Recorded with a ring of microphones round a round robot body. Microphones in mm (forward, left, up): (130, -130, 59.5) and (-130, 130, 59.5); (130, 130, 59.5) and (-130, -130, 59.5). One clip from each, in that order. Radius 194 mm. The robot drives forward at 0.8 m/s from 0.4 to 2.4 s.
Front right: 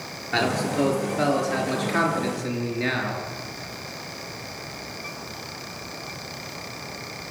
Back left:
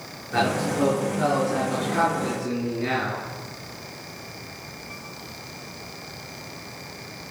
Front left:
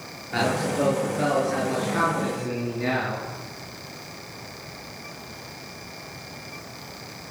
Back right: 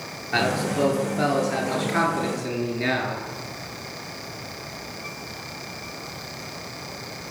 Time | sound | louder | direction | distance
0.3 | a man speaking | even, back right 1 dB | 70° right | 9.5 m